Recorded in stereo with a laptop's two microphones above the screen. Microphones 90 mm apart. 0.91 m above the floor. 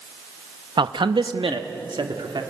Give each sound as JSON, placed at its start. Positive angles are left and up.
{"t": 0.8, "sound": "a man speaking", "side_deg": -70, "distance_m": 0.7}